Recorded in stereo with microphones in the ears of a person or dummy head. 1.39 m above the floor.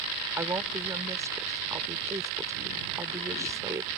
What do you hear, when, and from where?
0.4 s a woman speaking: 15° right (ahead or behind)